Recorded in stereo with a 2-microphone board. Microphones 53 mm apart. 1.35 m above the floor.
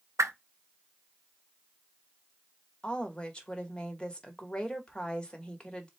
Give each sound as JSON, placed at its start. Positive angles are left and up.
{"t": 0.2, "sound": "a whoosh", "side_deg": -70, "distance_m": 0.6}
{"t": 2.8, "sound": "a woman speaking", "side_deg": 20, "distance_m": 1.3}